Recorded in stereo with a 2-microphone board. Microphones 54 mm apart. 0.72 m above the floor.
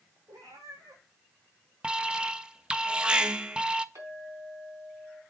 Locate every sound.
0.3 s a cat meowing: 80° right, 4 m
1.8 s an alarm: 20° right (ahead or behind), 0.5 m
4.0 s a clink: 75° right (ahead or behind), 4 m